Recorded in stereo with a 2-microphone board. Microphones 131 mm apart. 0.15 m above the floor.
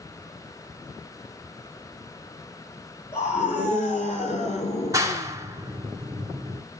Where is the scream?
60° left (ahead or behind), 4 m.